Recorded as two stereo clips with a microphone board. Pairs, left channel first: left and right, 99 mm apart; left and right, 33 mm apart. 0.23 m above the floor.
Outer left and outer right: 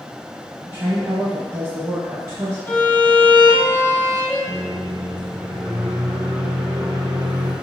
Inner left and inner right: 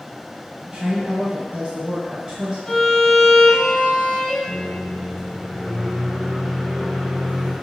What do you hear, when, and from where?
0.7 s a woman speaking: 25° right (ahead or behind), 1.2 m
2.7 s a violin: 20° left (ahead or behind), 1.9 m
4.5 s a microwave: 20° right (ahead or behind), 1.6 m